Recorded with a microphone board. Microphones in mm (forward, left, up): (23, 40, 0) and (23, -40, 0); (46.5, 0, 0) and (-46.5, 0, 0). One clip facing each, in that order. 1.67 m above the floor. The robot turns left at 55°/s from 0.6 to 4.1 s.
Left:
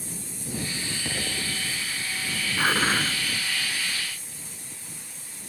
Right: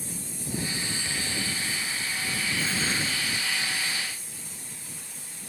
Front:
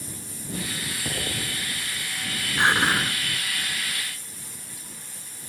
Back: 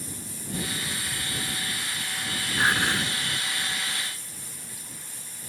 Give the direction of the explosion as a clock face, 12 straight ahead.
11 o'clock.